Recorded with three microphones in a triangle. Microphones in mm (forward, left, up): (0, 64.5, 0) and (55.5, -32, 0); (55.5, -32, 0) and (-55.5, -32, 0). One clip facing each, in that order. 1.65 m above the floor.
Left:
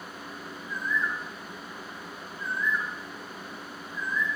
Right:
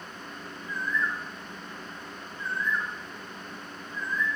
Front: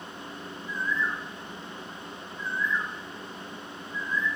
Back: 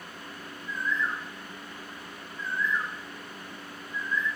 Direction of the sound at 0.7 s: 45° right.